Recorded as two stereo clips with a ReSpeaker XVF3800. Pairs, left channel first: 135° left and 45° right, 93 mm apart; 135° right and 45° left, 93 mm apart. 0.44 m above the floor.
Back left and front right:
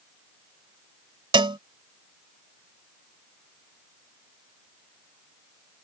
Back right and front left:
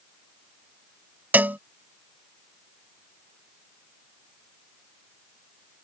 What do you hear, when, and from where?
1.3 s a cowbell: 25° right